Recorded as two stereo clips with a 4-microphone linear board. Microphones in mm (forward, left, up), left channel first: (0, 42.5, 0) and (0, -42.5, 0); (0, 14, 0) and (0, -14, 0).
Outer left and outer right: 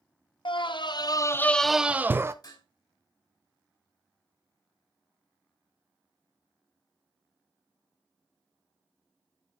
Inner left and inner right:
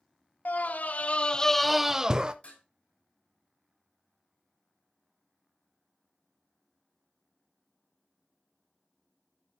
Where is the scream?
80° left, 0.8 m; by 2.3 s 30° right (ahead or behind), 0.8 m.